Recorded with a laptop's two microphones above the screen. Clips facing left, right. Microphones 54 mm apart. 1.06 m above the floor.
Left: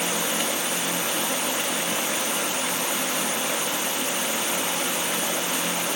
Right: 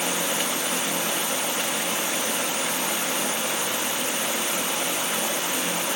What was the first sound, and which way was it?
Only background noise.